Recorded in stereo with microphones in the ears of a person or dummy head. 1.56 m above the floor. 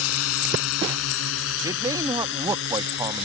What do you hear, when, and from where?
0.0 s a drone: 85° left; by 3.2 s 60° left (ahead or behind)
1.6 s a man speaking: 20° right (ahead or behind)